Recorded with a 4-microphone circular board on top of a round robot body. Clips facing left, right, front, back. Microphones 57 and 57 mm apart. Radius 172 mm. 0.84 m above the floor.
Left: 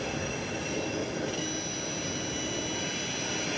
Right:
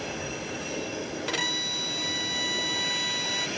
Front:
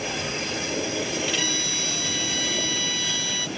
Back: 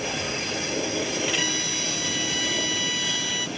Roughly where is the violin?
Right.